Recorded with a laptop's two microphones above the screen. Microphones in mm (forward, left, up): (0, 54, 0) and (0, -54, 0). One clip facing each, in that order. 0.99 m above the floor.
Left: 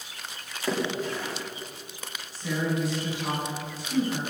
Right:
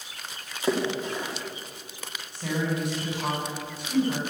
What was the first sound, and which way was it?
A splash, 15° right (ahead or behind).